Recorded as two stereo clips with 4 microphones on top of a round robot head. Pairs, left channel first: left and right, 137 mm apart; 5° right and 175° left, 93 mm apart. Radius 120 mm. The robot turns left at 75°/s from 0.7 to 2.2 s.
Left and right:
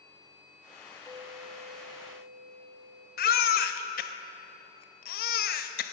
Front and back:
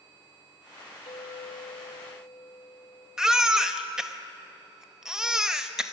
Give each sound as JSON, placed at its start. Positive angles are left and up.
{"t": 1.1, "sound": "a clink", "azimuth_deg": -20, "distance_m": 1.1}
{"t": 3.2, "sound": "a baby crying", "azimuth_deg": 90, "distance_m": 0.6}